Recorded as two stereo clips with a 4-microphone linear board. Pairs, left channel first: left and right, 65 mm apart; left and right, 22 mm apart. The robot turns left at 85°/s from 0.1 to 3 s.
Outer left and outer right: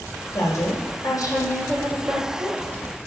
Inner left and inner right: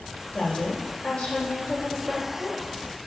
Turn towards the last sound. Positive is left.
turn(degrees=-90)